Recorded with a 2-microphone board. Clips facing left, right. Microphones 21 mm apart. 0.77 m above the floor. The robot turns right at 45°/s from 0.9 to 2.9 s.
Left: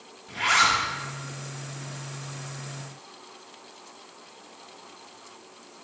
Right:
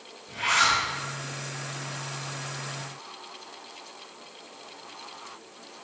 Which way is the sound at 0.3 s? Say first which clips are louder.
Left 2 dB; 40° left (ahead or behind).